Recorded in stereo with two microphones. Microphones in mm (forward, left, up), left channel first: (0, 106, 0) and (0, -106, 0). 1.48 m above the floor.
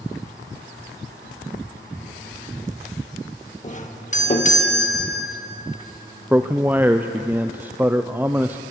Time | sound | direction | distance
3.6 | a doorbell | 35° left (ahead or behind) | 1.6 m
6.3 | a man speaking | 10° right (ahead or behind) | 0.5 m